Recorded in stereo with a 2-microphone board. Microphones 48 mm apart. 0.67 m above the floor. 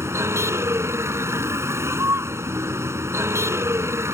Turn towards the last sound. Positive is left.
turn(degrees=-75)  # may be behind; listen again after turning